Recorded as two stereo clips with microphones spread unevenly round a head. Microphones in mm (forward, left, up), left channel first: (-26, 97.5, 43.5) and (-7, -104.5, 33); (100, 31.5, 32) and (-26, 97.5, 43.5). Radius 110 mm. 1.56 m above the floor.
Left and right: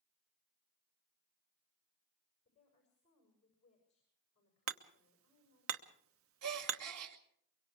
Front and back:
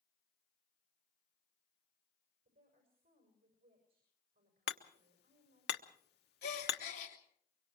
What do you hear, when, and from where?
2.5 s a woman speaking: 155° left, 6 m
4.7 s hammering: 55° right, 1.1 m
6.4 s a gasp: 65° right, 2.5 m